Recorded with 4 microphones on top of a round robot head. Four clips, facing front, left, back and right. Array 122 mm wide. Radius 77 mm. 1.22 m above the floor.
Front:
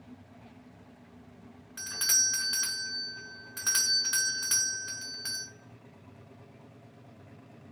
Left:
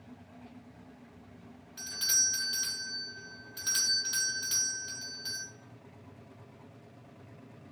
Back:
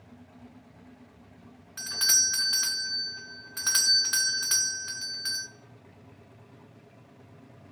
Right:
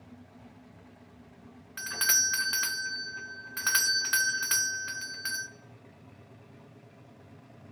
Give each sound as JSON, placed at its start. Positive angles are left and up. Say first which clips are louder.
{"t": 1.8, "sound": "a doorbell", "louder": "right 10 dB, back 3 dB", "azimuth_deg": -105, "distance_m": 0.6}